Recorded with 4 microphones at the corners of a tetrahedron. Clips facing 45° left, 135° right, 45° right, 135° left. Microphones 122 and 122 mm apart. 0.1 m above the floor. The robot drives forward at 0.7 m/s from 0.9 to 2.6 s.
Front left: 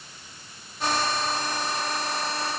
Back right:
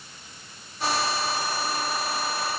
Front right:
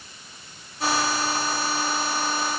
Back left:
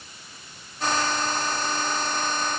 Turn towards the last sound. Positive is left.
No sound to turn to.